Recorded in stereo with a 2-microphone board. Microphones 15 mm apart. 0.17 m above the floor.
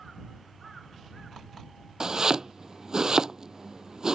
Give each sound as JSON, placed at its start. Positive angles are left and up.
{"t": 2.0, "sound": "chopping", "side_deg": -40}